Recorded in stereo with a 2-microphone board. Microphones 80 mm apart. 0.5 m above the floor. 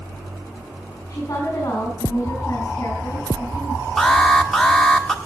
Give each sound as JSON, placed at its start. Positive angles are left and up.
{"t": 1.1, "sound": "a woman speaking", "side_deg": 35, "distance_m": 5.5}
{"t": 4.0, "sound": "an alarm", "side_deg": 10, "distance_m": 1.2}